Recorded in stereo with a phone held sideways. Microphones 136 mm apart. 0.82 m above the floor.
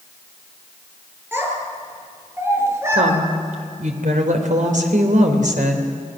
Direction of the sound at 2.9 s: 70° right (ahead or behind).